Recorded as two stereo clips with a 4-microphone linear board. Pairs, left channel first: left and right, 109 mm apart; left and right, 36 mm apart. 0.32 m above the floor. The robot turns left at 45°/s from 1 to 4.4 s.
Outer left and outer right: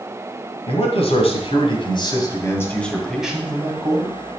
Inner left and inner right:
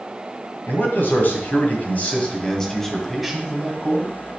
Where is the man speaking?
95° left, 2 m; by 4.2 s 45° right, 2 m.